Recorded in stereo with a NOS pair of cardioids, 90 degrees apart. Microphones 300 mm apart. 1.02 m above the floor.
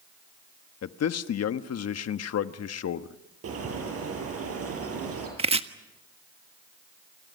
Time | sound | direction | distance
0.8 | a man speaking | 55° left | 1.3 m
3.4 | a bird | 50° right | 10 m
5.4 | chopping | 20° right | 1.4 m